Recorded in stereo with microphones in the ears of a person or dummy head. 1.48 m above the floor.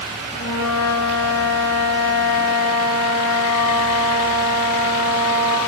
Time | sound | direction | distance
0.3 | a flute | 75° left (ahead or behind) | 5 m